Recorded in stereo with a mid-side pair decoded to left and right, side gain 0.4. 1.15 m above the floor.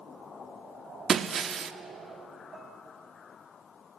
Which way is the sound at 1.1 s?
55° right.